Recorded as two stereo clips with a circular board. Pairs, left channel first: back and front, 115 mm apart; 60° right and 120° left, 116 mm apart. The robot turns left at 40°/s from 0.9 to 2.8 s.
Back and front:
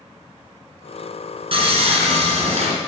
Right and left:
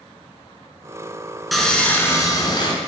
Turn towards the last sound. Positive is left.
turn(degrees=-20)